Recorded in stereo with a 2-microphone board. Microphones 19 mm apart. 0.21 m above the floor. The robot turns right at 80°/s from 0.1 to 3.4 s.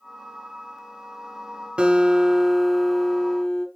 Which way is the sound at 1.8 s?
80° right.